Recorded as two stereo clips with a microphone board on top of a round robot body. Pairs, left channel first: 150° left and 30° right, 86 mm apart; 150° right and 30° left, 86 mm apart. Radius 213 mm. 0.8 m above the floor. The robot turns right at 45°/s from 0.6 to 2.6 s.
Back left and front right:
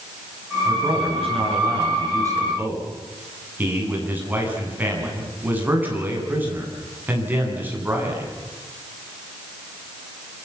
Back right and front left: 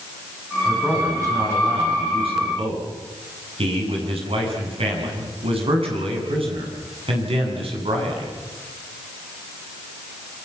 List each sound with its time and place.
0.7 s a man speaking: 50° right, 9.5 m; by 8.3 s 40° left, 9.5 m